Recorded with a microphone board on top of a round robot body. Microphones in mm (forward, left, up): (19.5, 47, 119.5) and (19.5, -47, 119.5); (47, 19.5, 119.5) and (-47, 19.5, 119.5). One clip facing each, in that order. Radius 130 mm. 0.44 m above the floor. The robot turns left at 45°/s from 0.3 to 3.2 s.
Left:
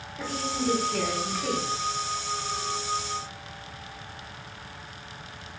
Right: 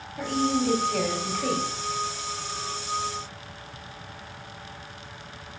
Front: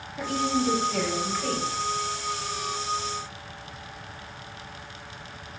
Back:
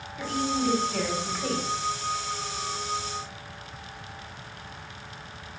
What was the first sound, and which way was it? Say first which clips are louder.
A woman speaking: right 6 dB, front 2 dB; 55° right.